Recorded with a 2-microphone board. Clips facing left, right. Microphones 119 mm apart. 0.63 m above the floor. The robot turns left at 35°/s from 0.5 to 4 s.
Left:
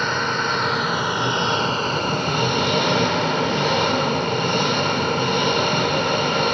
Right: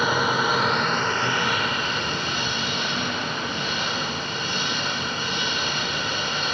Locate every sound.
0.0 s an engine running: 175° right, 1.4 m; by 6.5 s 65° left, 1.4 m